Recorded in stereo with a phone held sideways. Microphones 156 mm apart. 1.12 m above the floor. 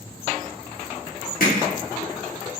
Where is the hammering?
65° left (ahead or behind), 0.6 m.